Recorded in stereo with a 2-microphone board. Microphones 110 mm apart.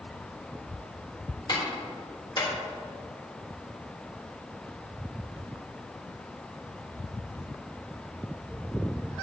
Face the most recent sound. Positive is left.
turn(degrees=45)  # may be behind; listen again after turning